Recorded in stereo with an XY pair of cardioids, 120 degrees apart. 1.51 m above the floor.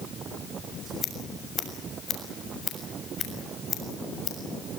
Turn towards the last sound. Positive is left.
turn(degrees=40)